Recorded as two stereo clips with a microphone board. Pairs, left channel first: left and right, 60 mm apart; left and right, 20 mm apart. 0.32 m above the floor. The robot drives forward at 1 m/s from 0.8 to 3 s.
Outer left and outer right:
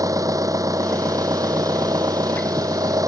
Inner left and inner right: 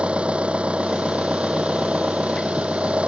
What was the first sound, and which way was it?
An engine running, 75° right (ahead or behind).